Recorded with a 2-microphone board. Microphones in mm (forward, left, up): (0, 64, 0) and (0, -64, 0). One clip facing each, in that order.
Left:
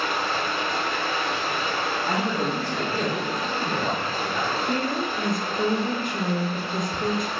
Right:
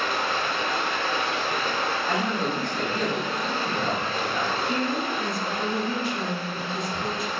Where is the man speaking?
30° left (ahead or behind), 0.5 m.